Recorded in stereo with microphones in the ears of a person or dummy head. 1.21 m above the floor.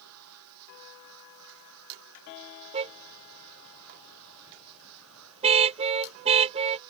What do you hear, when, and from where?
0.0 s a machine running: 90° right
2.7 s a car horn: 35° right (ahead or behind)